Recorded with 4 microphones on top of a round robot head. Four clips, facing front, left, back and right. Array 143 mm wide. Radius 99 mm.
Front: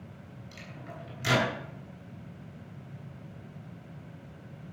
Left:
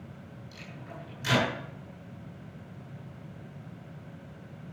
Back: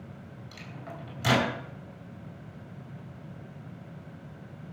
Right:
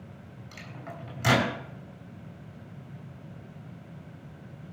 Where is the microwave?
120° right, 5.5 m.